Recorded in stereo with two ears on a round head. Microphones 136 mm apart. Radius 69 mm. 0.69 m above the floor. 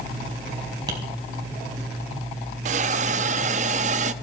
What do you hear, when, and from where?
0.9 s tapping: 25° right (ahead or behind), 4.5 m
2.6 s a hiss: 50° right (ahead or behind), 0.7 m